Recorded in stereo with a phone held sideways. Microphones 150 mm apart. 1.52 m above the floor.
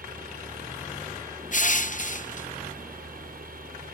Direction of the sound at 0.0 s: 80° right.